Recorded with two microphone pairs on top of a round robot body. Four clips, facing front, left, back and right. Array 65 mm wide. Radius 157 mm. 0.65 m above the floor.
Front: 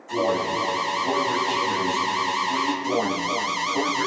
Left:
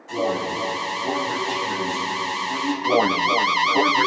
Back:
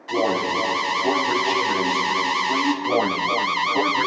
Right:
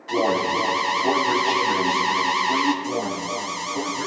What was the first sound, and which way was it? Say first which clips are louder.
An alarm: right 3 dB, back 2 dB; 145° right.